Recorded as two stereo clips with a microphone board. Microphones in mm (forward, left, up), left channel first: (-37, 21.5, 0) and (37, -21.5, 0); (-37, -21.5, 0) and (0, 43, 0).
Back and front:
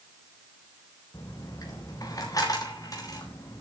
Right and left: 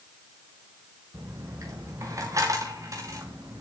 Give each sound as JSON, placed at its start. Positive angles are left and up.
{"t": 1.1, "sound": "a dropped coin", "azimuth_deg": 105, "distance_m": 3.5}